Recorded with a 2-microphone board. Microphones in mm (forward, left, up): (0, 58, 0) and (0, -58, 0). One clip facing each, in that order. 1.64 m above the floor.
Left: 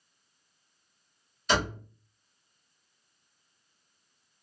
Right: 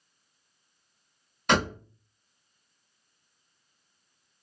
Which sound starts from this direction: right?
A door slam, at 1.5 s.